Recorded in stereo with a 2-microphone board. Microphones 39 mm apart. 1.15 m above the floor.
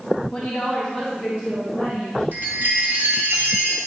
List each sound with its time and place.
0.3 s a woman speaking: 5° left (ahead or behind), 1.7 m; by 2.2 s 30° right (ahead or behind), 3.5 m
2.3 s a chime: 65° right (ahead or behind), 2.5 m